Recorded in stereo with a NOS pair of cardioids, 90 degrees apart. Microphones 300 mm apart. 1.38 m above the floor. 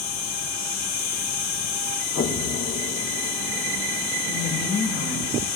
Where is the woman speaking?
70° left, 6 m.